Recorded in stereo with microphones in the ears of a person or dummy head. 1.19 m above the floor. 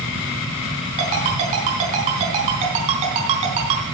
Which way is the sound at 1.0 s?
35° right (ahead or behind).